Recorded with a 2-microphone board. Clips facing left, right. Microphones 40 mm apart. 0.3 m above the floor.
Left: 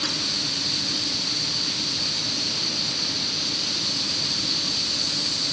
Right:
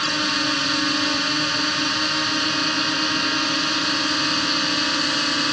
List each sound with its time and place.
0.0 s a drone: 70° right (ahead or behind)